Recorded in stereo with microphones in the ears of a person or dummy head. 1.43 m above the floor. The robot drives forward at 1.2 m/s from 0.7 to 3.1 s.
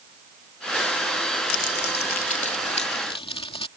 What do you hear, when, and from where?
1.5 s crumpling: 65° left (ahead or behind); by 3.7 s 30° left (ahead or behind)